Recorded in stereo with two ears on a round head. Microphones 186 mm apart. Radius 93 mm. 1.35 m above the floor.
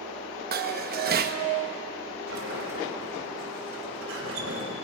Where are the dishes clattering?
50° right (ahead or behind), 0.8 m.